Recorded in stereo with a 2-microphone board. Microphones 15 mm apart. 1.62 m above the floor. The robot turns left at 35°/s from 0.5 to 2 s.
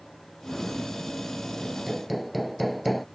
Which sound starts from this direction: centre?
Hammering, at 1.6 s.